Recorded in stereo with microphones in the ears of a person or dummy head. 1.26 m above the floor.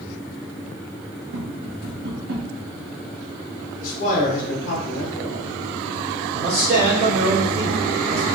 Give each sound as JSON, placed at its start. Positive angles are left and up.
{"t": 1.3, "sound": "tapping", "side_deg": -55, "distance_m": 0.9}
{"t": 3.8, "sound": "a man speaking", "side_deg": 50, "distance_m": 0.7}
{"t": 6.3, "sound": "a man speaking", "side_deg": -50, "distance_m": 1.9}